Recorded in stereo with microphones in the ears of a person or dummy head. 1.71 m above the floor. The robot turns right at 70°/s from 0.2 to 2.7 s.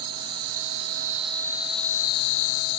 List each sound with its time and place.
0.0 s an insect: 100° right, 1.0 m; by 2.8 s 75° left, 1.0 m